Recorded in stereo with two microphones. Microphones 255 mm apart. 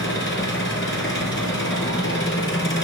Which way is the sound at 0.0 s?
50° left (ahead or behind).